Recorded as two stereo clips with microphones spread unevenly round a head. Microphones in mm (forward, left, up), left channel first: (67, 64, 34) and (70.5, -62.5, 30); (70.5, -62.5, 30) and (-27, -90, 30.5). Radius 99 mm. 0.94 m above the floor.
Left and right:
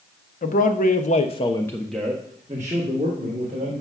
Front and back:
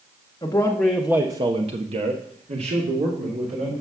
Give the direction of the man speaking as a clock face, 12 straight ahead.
9 o'clock.